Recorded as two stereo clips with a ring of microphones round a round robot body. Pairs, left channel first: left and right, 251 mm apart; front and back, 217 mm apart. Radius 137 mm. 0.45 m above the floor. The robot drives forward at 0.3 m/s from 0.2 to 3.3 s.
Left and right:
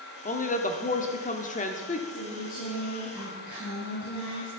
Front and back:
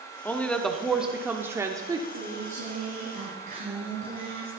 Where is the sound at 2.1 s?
150° left, 7 m.